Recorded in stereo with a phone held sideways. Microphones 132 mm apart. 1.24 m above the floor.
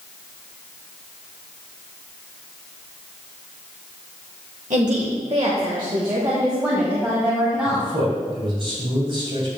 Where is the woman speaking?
65° right (ahead or behind), 1.3 m; by 7.9 s 5° right (ahead or behind), 2.5 m.